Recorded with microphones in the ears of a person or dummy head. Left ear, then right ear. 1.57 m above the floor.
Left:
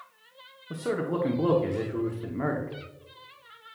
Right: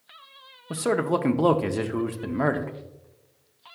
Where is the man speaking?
35° right (ahead or behind), 0.6 m.